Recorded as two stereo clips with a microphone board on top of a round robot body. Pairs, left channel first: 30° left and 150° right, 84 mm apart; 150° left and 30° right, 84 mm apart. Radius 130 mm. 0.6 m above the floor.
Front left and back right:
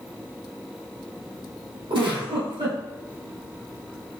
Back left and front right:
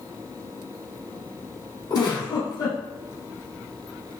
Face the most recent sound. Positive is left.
turn(degrees=-170)